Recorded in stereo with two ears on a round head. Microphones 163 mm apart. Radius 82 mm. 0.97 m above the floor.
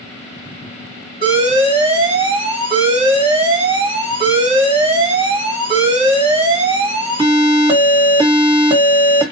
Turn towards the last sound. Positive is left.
turn(degrees=-25)  # may be behind; listen again after turning